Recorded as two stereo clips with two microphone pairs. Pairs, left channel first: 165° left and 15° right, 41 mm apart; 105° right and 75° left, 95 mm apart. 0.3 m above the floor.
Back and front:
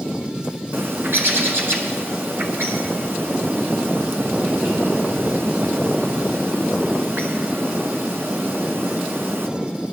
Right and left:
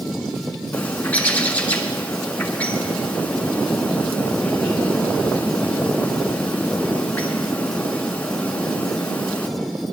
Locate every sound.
0.7 s a bird: 30° right, 1.3 m